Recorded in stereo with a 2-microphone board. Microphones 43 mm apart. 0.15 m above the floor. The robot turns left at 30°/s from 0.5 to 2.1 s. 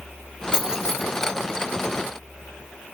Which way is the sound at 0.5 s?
15° right (ahead or behind).